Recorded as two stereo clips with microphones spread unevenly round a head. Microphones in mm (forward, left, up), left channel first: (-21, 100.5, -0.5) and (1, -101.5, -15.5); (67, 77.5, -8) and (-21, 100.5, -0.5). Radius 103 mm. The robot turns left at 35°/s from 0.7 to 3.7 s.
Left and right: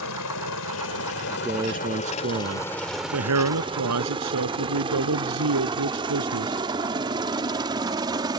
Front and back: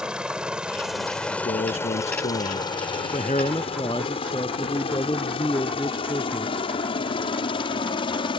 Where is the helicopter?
85° left; by 8.4 s 15° right.